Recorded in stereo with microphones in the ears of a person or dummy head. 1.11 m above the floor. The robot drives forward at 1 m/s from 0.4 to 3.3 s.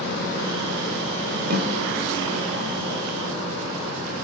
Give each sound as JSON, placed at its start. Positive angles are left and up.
{"t": 1.5, "sound": "a snare drum", "side_deg": -50, "distance_m": 2.5}